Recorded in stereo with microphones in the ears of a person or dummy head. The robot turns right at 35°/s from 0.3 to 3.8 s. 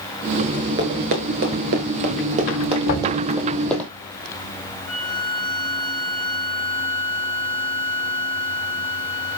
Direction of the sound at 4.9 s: 65° left (ahead or behind).